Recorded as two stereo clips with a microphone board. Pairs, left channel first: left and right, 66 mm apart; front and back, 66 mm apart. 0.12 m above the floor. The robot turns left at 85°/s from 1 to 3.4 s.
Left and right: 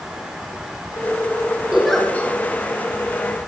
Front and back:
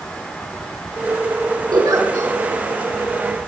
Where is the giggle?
165° right, 4.5 m; by 2.3 s 140° left, 4.5 m.